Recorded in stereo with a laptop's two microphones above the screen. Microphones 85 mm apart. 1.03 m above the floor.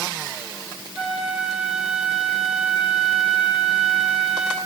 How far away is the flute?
About 8 m.